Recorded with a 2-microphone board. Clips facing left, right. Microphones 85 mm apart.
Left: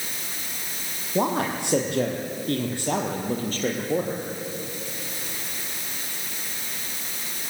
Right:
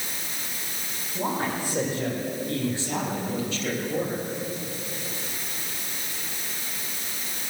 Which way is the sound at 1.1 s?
75° left (ahead or behind).